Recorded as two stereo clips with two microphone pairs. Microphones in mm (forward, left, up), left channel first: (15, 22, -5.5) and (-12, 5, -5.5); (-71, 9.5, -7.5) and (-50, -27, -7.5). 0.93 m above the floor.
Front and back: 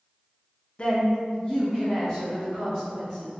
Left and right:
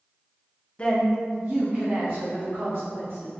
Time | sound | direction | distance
0.8 | a woman speaking | 75° left | 0.5 m